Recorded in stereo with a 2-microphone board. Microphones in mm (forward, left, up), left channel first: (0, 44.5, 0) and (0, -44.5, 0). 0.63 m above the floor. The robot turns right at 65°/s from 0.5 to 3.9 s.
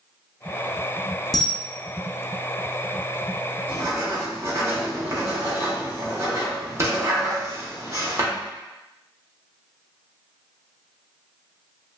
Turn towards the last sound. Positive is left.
turn(degrees=-30)  # may be behind; listen again after turning